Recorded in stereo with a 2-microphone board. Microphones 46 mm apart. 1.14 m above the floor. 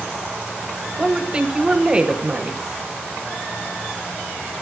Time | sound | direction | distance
1.0 | a woman speaking | 20° right (ahead or behind) | 0.6 m